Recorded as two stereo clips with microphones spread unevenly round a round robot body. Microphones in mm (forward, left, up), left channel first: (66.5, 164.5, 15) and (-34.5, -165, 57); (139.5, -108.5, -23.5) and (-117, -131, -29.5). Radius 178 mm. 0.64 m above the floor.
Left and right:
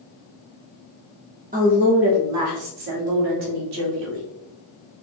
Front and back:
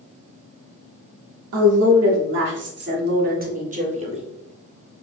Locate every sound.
1.5 s a woman speaking: 175° right, 1.1 m; by 4.2 s 110° right, 1.8 m